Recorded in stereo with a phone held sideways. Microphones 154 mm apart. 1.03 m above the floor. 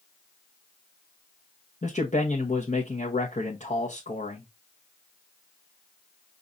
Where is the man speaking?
55° left (ahead or behind), 1.1 m.